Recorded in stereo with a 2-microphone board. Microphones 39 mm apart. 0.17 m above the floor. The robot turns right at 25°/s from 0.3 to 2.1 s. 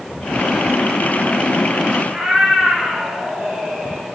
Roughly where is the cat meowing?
Right.